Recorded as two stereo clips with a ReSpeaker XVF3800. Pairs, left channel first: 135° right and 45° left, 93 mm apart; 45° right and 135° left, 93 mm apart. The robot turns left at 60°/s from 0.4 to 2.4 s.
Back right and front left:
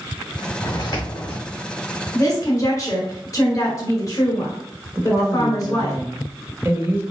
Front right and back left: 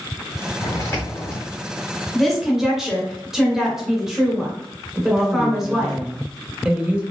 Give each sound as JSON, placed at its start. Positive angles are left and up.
{"t": 0.6, "sound": "footsteps", "azimuth_deg": -90, "distance_m": 1.8}
{"t": 2.1, "sound": "a woman speaking", "azimuth_deg": -125, "distance_m": 1.1}
{"t": 5.0, "sound": "a woman speaking", "azimuth_deg": 70, "distance_m": 0.9}